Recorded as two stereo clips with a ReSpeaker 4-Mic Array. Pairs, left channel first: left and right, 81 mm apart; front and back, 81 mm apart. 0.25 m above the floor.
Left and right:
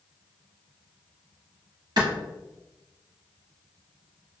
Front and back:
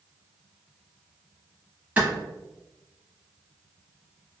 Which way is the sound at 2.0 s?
110° right.